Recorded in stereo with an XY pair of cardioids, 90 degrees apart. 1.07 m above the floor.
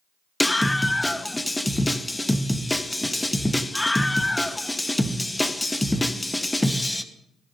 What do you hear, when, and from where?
0.4 s a scream: 10° left, 1.2 m